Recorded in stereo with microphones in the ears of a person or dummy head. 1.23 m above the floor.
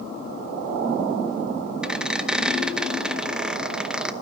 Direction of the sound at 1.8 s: 10° right (ahead or behind).